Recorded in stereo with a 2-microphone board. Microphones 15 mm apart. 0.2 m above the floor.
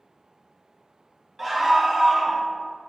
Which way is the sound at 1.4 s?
15° right (ahead or behind).